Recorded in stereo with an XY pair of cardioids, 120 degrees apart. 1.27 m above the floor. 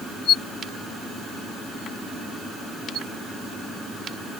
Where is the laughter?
I don't hear laughter.